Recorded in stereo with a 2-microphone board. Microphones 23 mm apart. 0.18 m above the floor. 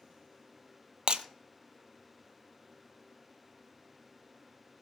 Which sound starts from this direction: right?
Breaking glass, at 1.1 s.